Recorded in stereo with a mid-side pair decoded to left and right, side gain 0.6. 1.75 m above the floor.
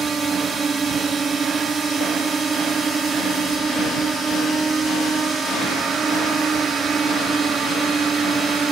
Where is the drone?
30° right.